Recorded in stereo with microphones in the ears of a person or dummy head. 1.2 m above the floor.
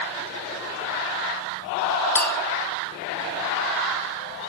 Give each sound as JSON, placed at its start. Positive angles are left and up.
{"t": 2.1, "sound": "a clink", "side_deg": 10, "distance_m": 0.7}